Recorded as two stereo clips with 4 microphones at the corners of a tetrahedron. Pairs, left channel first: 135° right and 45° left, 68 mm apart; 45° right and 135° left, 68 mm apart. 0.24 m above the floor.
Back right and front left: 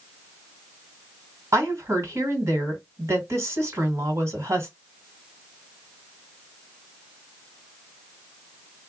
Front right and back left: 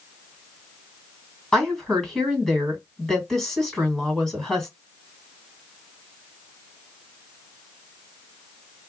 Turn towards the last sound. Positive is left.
turn(degrees=35)